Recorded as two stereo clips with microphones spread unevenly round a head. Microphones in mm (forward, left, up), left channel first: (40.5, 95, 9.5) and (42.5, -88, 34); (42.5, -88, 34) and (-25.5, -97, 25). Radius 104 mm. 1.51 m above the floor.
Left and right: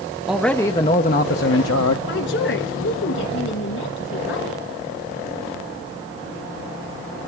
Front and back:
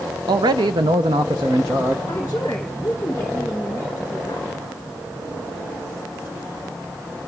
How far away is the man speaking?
About 0.7 m.